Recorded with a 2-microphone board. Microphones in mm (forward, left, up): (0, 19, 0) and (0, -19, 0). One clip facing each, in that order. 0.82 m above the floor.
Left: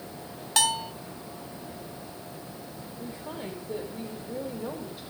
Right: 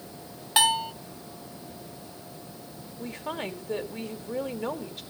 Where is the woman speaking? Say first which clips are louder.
Right 5 dB; 70° right (ahead or behind), 2.5 m.